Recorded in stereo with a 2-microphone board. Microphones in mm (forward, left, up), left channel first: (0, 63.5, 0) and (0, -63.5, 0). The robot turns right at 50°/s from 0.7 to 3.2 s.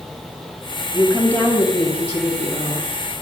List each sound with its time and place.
0.9 s a woman speaking: 5° right, 3 m; by 2.9 s 90° left, 3 m